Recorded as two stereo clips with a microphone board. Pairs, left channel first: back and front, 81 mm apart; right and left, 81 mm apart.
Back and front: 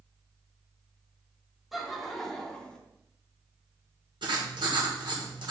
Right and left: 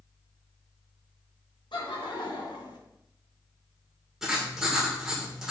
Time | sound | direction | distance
1.7 | laughter | 90° right | 2 m
4.2 | writing | 5° left | 2.5 m